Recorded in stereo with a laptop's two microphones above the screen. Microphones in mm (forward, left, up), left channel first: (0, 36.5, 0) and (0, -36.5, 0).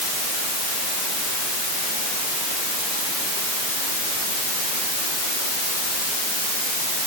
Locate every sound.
Only background noise.